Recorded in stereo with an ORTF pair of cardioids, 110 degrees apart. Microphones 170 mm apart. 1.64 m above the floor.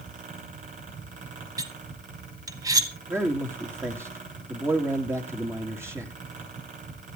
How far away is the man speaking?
About 3.5 m.